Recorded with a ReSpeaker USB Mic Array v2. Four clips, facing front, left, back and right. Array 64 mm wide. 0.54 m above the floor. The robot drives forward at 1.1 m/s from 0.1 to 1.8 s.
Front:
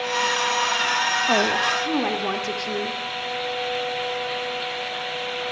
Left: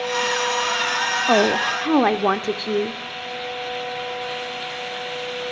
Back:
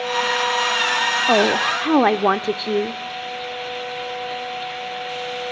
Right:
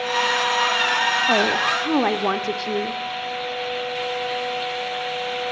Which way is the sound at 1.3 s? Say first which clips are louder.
Left 1 dB, back 5 dB; 135° left.